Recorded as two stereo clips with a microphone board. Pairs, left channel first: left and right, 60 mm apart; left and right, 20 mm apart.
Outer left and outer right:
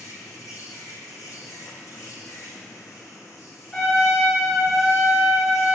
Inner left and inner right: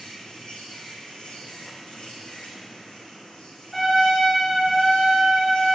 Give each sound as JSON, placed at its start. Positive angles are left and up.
{"t": 0.0, "sound": "an insect", "side_deg": 65, "distance_m": 2.0}
{"t": 3.7, "sound": "a trumpet", "side_deg": 20, "distance_m": 2.5}